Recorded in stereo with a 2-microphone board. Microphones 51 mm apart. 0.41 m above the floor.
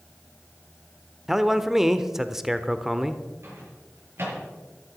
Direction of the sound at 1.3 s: 5° right (ahead or behind).